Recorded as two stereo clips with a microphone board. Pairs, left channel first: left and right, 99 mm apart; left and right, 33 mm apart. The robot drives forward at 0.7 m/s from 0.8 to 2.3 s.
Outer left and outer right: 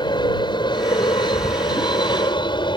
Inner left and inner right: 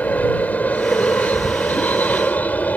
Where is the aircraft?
50° left (ahead or behind); by 2.8 s 55° left (ahead or behind).